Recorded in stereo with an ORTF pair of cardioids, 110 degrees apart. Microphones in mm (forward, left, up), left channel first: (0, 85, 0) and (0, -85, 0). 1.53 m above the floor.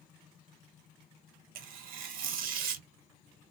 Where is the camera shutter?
I don't hear a camera shutter.